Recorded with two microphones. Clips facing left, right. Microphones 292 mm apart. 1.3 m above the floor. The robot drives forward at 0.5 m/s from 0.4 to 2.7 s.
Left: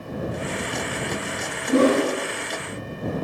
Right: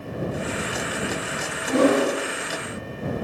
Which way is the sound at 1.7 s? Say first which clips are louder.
Left 1 dB; 35° left (ahead or behind).